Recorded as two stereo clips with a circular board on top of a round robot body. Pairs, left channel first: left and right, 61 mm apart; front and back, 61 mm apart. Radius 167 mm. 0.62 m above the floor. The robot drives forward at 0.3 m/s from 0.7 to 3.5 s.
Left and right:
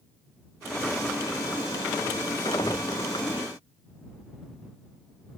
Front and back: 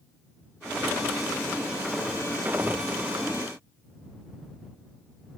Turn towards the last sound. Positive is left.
No sound to turn to.